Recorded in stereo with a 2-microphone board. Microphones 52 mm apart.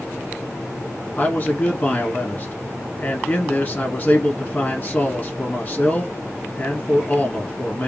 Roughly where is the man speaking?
Left.